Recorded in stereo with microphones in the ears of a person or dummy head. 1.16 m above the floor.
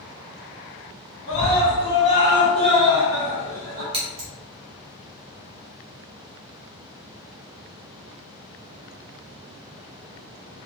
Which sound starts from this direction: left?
A scream, at 1.3 s.